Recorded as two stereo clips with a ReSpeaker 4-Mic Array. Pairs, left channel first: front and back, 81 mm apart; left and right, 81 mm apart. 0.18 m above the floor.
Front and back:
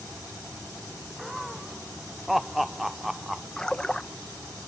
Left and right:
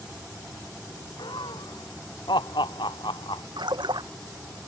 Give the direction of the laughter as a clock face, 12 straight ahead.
9 o'clock.